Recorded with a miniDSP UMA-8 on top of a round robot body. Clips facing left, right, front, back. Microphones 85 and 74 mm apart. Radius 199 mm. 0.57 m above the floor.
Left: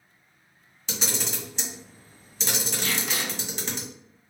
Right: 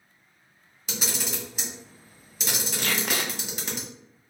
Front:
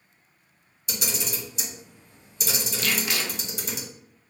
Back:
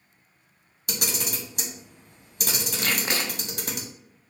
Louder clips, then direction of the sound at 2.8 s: Right 4 dB, back 1 dB; 125° right.